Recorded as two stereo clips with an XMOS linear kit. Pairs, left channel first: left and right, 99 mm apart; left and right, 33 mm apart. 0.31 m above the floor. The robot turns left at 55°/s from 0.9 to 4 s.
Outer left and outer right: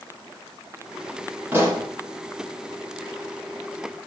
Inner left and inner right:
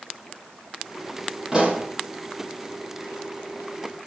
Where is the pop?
20° right (ahead or behind), 7 m; by 1.9 s 40° right (ahead or behind), 7 m.